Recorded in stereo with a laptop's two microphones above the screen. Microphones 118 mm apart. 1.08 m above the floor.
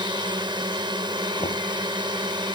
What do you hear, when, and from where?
0.0 s a drone: 40° right (ahead or behind)
1.4 s knocking: 80° left